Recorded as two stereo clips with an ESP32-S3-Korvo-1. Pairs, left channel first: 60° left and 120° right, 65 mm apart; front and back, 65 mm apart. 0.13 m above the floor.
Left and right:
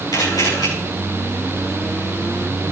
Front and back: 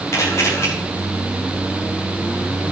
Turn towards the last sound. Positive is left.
turn(degrees=45)